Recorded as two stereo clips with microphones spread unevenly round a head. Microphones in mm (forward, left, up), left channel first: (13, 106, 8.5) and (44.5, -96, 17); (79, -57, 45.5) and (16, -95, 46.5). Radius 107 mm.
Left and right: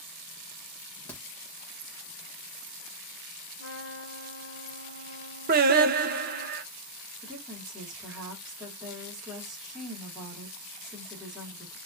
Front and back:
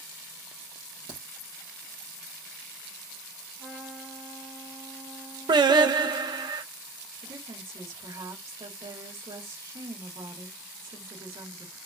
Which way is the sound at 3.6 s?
110° left.